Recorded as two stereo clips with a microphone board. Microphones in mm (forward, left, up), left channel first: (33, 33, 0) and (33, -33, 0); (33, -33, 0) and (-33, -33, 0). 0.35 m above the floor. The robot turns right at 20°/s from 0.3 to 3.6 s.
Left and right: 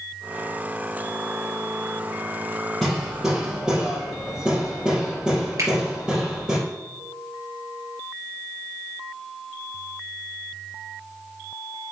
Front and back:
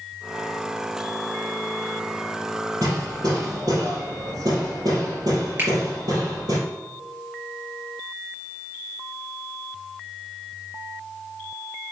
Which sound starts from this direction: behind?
Hammering, at 2.8 s.